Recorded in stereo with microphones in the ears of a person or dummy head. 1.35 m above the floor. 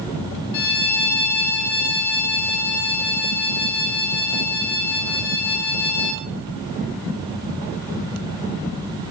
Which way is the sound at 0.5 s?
60° left (ahead or behind).